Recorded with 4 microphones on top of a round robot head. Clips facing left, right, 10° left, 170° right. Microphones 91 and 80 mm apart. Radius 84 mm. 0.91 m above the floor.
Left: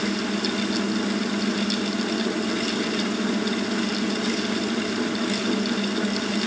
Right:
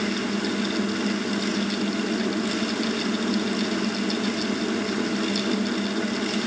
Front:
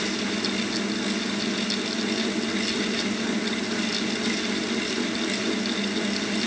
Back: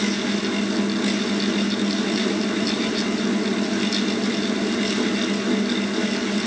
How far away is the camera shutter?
I don't hear a camera shutter.